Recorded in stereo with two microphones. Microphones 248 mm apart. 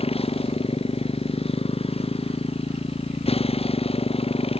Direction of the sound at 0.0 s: 25° left (ahead or behind).